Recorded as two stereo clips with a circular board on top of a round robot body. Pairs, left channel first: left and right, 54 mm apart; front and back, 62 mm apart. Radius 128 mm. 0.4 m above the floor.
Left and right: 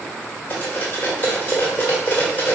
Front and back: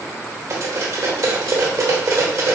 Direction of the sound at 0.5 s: 150° left.